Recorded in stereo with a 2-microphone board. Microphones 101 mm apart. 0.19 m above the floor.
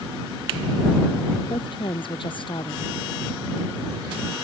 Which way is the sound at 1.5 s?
55° left (ahead or behind).